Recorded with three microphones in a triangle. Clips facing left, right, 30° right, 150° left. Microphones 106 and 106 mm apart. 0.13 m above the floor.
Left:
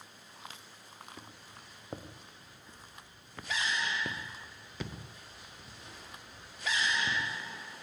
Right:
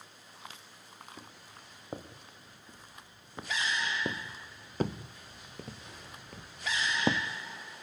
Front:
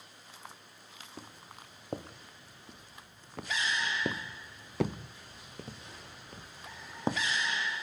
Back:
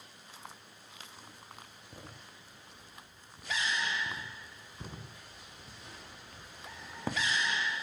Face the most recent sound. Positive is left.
turn(degrees=-100)